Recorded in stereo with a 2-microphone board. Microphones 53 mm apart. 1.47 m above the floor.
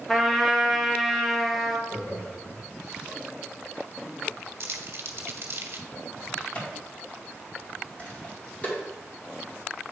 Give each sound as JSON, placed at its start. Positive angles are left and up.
{"t": 0.1, "sound": "a trumpet", "side_deg": 0, "distance_m": 1.1}
{"t": 1.9, "sound": "laughter", "side_deg": 70, "distance_m": 3.5}
{"t": 4.6, "sound": "crumpling", "side_deg": -55, "distance_m": 0.9}
{"t": 6.4, "sound": "a crack", "side_deg": 35, "distance_m": 2.5}